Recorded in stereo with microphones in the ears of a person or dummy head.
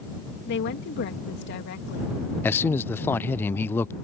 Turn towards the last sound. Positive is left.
turn(degrees=10)  # may be behind; listen again after turning